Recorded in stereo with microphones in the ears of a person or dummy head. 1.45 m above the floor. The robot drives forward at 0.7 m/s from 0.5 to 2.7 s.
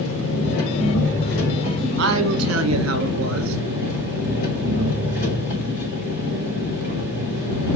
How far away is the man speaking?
About 1.3 m.